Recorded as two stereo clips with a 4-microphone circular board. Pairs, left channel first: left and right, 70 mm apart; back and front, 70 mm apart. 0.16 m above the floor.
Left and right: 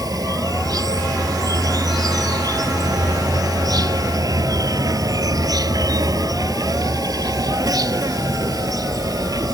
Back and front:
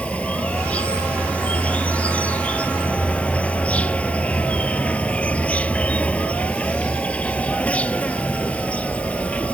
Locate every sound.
0.0 s an insect: 110° right